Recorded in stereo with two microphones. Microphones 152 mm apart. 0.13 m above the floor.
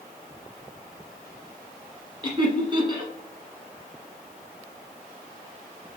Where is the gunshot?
I don't hear a gunshot.